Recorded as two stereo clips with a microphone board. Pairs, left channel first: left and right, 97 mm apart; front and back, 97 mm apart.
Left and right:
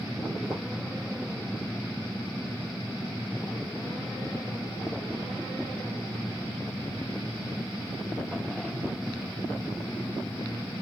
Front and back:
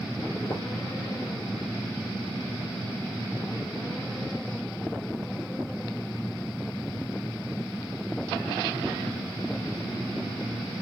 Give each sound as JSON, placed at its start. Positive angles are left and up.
{"t": 0.4, "sound": "footsteps", "azimuth_deg": -35, "distance_m": 1.9}